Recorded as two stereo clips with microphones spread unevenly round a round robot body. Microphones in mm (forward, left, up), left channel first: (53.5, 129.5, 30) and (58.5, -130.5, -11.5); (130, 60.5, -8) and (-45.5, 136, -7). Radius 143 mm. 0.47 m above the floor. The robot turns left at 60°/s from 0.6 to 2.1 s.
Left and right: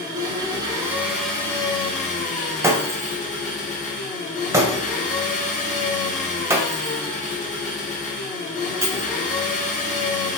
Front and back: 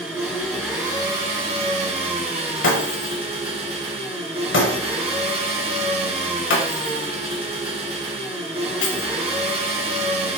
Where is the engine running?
125° right, 1.0 m; by 10.4 s 145° left, 1.0 m.